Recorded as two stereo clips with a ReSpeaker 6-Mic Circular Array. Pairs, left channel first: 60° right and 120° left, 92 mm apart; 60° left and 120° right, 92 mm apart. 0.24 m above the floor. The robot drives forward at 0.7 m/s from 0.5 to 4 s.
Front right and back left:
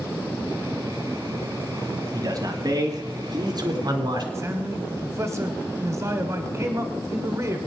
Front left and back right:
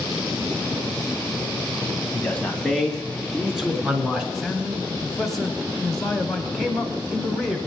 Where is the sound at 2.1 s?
130° left, 1.7 m; by 4.2 s 155° left, 2.5 m.